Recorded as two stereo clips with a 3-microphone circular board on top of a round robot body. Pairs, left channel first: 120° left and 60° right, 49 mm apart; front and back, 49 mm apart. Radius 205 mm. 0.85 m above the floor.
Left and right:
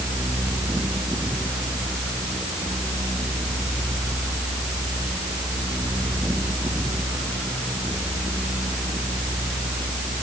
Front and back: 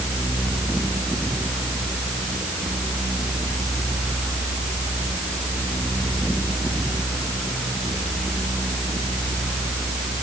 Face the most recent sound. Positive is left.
No sound to turn to.